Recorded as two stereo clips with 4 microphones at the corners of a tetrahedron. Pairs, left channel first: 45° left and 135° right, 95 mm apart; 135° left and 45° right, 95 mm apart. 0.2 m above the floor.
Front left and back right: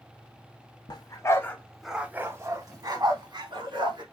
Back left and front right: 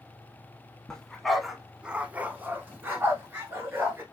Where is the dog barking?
55° left, 0.6 m; by 4.0 s 110° right, 1.2 m.